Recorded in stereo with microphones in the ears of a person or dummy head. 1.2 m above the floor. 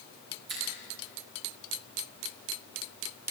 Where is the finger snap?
60° right (ahead or behind), 9 m.